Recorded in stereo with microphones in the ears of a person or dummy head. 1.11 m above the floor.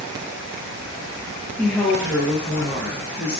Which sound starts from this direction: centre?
A woman speaking, at 1.6 s.